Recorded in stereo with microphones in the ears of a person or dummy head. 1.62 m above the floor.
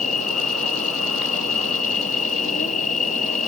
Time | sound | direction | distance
0.0 | an insect | 40° left (ahead or behind) | ?